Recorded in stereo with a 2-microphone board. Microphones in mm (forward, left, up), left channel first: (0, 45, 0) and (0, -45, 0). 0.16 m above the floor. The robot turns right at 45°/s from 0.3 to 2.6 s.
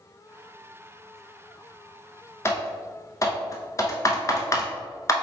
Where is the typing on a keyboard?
30° left (ahead or behind), 0.6 m; by 5.1 s 35° left (ahead or behind), 0.6 m.